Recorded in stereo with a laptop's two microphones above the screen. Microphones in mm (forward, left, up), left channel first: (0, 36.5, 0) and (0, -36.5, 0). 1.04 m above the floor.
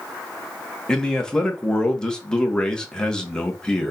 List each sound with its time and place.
0.9 s a man speaking: 10° left (ahead or behind), 0.9 m